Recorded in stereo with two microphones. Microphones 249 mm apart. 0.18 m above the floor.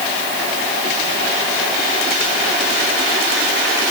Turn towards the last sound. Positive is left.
No sound to turn to.